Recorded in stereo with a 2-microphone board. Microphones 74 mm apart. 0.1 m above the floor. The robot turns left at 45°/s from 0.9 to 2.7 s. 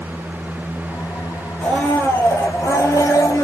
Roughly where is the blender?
Behind.